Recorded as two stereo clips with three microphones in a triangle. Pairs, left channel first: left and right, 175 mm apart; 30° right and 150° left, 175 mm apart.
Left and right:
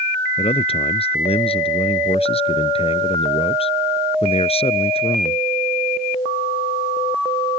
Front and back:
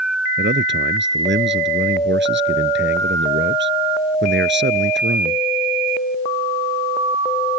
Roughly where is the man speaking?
Behind left.